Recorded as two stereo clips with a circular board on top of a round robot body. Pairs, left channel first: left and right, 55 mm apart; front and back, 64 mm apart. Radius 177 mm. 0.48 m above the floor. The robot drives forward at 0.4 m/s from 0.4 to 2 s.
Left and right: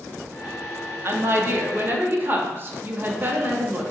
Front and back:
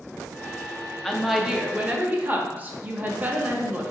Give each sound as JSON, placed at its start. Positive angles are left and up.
{"t": 1.0, "sound": "a woman speaking", "azimuth_deg": -80, "distance_m": 0.8}